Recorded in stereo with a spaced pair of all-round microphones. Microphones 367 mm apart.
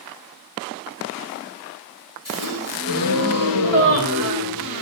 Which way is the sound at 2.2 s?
65° left (ahead or behind).